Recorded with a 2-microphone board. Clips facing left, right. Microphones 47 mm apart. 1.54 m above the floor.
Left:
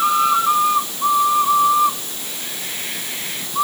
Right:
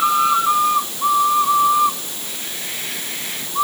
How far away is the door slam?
I don't hear a door slam.